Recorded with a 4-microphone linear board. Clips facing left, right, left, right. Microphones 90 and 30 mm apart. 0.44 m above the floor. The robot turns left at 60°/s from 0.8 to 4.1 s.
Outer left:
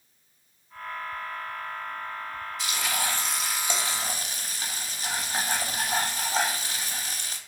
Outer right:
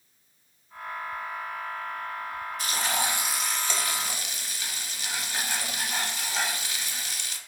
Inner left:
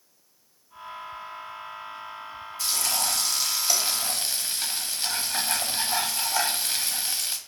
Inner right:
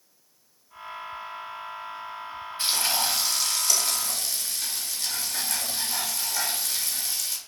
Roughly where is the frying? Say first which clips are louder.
Outer right 2 dB, inner right 2 dB; behind right.